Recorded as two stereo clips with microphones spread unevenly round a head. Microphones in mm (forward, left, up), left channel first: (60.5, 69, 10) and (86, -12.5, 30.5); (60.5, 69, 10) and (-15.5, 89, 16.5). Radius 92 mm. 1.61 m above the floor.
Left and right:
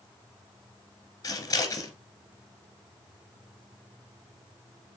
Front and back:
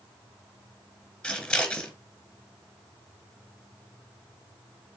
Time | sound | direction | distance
1.2 | scissors | 65° left | 2 m